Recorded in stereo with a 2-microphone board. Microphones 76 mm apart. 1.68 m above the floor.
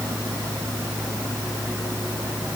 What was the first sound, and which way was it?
Only background noise.